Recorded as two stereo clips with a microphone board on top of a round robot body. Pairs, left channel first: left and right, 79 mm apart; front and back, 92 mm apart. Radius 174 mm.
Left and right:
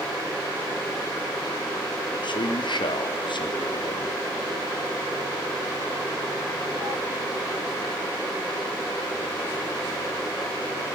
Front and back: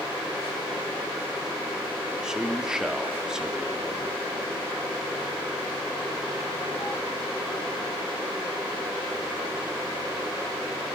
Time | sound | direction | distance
2.2 | a man speaking | 100° left | 3 m